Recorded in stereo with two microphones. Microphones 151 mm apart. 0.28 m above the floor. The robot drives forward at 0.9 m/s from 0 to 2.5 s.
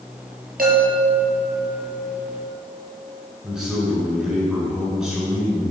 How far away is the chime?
About 2.5 m.